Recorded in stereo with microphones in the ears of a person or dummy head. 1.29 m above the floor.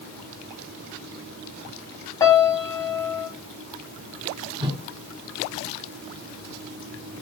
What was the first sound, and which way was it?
A piano, 25° left (ahead or behind).